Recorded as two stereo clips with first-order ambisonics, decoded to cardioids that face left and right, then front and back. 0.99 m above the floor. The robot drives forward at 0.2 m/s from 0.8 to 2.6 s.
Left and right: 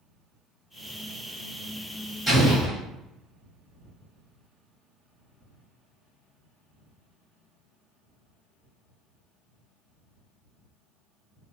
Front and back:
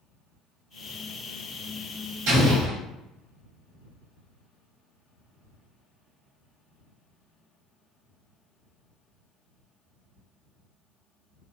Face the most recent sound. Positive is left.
turn(degrees=-175)